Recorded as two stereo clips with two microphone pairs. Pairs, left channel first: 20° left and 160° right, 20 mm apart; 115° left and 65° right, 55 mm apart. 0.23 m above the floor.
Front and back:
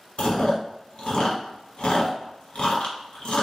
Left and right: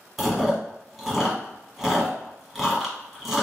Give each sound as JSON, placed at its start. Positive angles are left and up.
{"t": 0.2, "sound": "chewing", "azimuth_deg": 20, "distance_m": 1.2}